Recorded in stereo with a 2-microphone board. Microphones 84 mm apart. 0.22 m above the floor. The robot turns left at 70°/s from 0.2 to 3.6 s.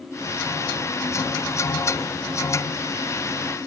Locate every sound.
Only background noise.